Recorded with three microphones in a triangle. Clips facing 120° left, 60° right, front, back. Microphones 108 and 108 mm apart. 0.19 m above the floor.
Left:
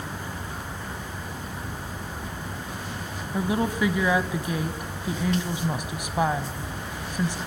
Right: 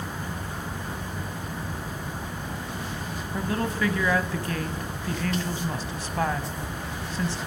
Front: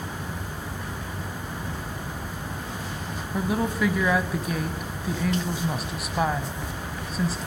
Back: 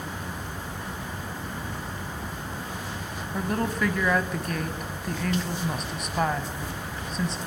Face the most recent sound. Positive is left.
turn(degrees=80)